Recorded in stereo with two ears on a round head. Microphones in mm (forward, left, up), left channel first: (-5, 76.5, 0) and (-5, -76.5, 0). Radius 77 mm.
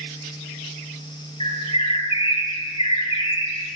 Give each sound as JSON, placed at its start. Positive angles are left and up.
{"t": 1.4, "sound": "a bird", "side_deg": 35, "distance_m": 1.7}